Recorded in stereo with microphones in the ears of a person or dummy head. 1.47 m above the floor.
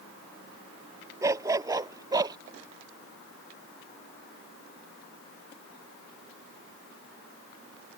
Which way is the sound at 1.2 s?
15° right (ahead or behind).